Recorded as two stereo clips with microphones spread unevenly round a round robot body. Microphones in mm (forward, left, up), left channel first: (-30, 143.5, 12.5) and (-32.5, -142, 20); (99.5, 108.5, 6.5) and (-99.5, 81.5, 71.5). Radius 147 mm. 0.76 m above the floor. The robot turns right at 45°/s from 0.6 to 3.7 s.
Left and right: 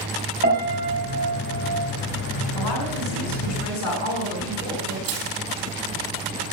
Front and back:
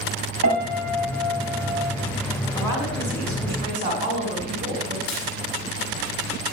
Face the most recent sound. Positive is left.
turn(degrees=-45)